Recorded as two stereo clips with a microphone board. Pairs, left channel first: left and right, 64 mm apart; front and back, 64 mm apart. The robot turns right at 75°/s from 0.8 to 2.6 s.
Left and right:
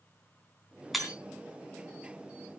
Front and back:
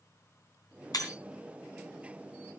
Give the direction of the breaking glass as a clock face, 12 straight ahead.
12 o'clock.